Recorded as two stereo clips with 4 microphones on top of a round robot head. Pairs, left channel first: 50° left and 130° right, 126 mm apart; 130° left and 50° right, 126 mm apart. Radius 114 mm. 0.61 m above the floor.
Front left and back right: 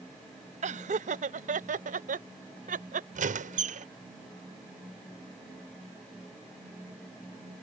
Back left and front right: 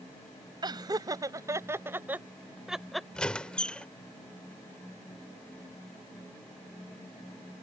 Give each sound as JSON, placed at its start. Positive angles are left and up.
{"t": 0.6, "sound": "laughter", "azimuth_deg": -105}
{"t": 3.1, "sound": "a squeak", "azimuth_deg": -145}